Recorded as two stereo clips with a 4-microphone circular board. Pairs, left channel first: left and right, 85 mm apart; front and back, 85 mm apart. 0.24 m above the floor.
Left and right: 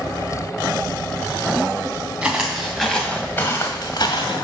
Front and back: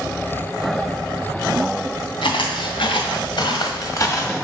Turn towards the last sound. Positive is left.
turn(degrees=70)